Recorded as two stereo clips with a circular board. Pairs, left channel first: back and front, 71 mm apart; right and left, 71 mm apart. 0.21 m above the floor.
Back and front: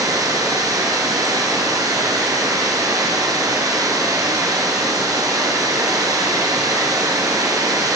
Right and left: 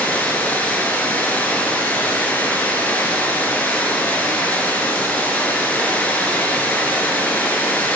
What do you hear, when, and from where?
0.0 s running water: 25° right, 2 m